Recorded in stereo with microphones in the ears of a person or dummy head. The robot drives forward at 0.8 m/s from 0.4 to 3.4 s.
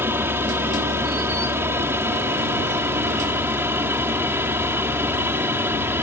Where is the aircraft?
15° right (ahead or behind); by 6.0 s 10° right (ahead or behind).